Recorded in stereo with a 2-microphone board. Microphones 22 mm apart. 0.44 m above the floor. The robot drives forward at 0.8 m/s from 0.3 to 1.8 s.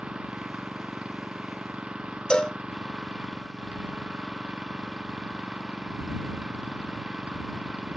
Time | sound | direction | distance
0.0 | an engine running | 45° right (ahead or behind) | ?
2.3 | a cowbell | 45° left (ahead or behind) | ?